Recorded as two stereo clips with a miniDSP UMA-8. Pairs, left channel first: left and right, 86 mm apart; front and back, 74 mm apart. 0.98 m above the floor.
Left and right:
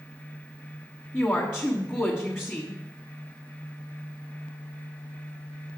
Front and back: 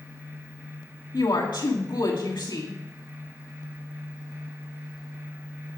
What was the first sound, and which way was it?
A woman speaking, 25° left.